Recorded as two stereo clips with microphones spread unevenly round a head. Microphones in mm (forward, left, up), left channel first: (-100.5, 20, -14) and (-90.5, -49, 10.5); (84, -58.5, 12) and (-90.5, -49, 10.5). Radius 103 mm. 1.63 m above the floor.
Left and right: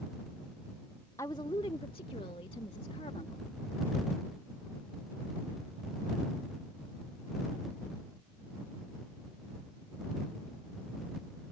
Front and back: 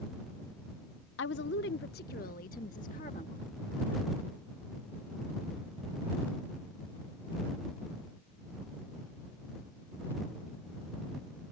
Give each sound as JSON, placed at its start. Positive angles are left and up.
{"t": 1.2, "sound": "a woman speaking", "azimuth_deg": 20}